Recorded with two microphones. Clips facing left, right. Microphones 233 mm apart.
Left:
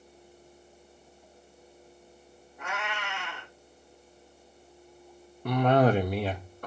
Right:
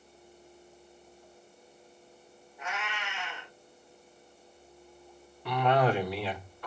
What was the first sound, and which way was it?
A cat meowing, 55° left (ahead or behind).